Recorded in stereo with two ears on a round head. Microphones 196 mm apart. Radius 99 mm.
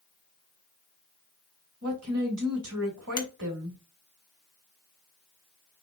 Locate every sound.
1.8 s a woman speaking: 75° right (ahead or behind), 2.5 m
3.2 s a finger snap: 20° left (ahead or behind), 1.0 m